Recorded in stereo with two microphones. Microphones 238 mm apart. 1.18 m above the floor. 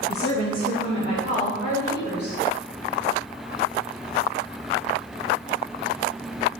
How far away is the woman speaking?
About 1.3 m.